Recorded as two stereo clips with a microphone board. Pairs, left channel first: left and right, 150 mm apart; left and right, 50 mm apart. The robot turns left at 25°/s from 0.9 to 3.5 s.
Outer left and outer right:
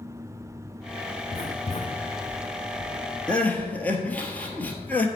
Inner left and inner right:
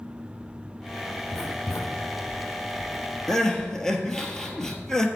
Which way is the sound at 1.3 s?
70° left (ahead or behind).